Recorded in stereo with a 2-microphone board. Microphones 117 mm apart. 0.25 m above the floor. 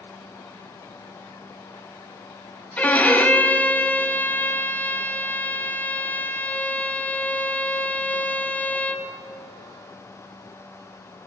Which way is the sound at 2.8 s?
15° left (ahead or behind).